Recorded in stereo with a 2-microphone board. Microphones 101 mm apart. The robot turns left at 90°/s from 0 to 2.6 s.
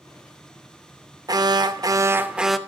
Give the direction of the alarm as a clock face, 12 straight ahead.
2 o'clock.